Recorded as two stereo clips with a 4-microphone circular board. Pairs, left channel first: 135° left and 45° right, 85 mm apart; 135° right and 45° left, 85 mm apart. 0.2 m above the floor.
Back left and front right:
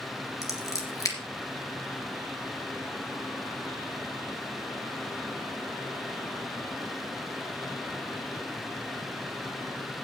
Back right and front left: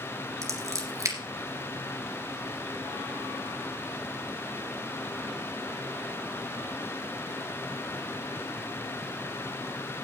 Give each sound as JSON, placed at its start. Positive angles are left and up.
{"t": 0.4, "sound": "scissors", "azimuth_deg": 90, "distance_m": 3.0}